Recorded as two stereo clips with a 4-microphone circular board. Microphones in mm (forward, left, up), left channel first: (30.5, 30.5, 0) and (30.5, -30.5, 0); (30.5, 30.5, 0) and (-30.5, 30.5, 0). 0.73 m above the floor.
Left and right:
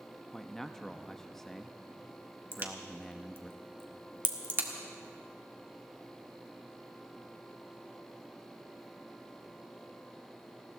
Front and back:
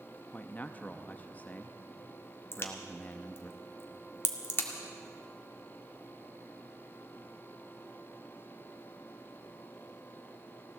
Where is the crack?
45° right, 1.7 m.